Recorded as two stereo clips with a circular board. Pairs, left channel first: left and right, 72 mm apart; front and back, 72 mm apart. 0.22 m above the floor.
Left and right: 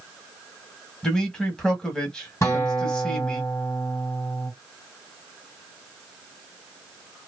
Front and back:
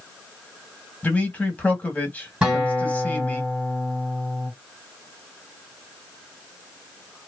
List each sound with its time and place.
1.0 s a man speaking: 25° left, 1.0 m
2.4 s a guitar: 105° left, 2.0 m